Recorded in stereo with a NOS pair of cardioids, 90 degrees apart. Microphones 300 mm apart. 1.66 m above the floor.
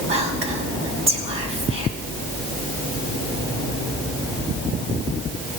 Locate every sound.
0.1 s whispering: 40° right, 1.4 m